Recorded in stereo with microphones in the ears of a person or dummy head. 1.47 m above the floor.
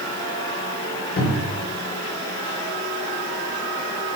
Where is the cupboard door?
55° left (ahead or behind), 2.0 m.